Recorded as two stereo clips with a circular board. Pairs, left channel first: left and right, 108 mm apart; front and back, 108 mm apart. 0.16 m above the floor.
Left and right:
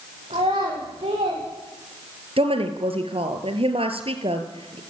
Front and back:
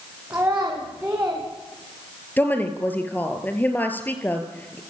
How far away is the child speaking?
About 8.5 m.